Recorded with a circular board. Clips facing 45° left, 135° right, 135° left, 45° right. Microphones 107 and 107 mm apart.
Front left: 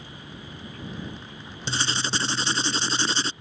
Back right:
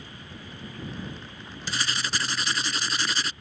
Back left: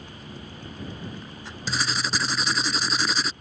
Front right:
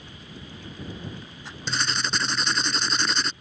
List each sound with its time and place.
1.7 s writing: 50° left